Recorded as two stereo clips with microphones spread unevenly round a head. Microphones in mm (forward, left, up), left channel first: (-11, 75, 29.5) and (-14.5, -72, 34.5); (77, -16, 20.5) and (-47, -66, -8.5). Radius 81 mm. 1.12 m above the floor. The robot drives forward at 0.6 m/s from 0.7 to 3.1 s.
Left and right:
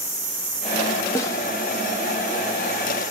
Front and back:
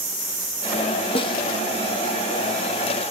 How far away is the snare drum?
About 0.6 m.